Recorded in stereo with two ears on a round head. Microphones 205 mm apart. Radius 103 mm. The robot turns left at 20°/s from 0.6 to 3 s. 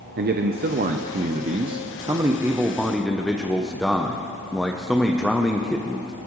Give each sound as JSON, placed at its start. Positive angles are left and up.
{"t": 0.2, "sound": "a man speaking", "azimuth_deg": -130, "distance_m": 0.7}